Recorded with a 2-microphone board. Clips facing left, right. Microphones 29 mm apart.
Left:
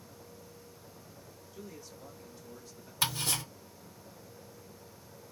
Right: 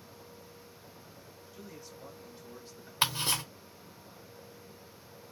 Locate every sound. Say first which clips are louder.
1.5 s a man speaking: left 1 dB; 5° right (ahead or behind), 2.0 m; by 2.9 s 40° right (ahead or behind), 1.8 m
3.0 s ticking: right 2 dB; 45° right (ahead or behind), 2.0 m